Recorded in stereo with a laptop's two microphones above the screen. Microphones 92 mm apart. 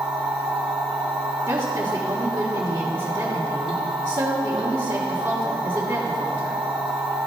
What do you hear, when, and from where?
0.0 s a machine running: 75° right (ahead or behind), 1.3 m
1.5 s a woman speaking: 40° right (ahead or behind), 2 m